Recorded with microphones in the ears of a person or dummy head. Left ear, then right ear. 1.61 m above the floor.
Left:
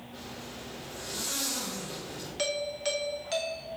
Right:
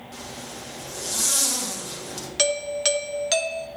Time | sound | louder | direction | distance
0.1 | a zipper | right 5 dB | 80° right | 2.5 m
2.4 | a doorbell | right 8 dB | 40° right (ahead or behind) | 0.9 m